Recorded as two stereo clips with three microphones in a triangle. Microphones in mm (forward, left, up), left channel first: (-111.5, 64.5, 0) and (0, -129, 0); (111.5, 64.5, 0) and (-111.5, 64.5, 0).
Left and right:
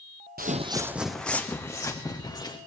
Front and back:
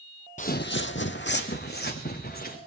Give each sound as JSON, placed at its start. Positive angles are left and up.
{"t": 0.4, "sound": "footsteps", "azimuth_deg": -40, "distance_m": 0.6}